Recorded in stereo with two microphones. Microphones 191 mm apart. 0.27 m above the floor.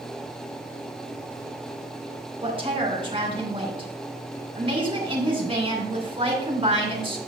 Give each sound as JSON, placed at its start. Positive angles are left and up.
{"t": 2.4, "sound": "a woman speaking", "side_deg": -30, "distance_m": 2.5}